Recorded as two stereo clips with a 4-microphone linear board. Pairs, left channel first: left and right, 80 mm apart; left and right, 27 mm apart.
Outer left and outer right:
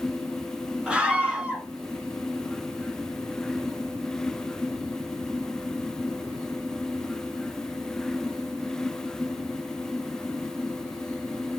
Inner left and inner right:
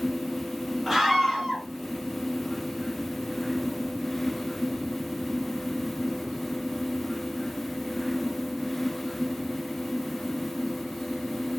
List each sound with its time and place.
0.9 s a scream: 10° right (ahead or behind), 4 m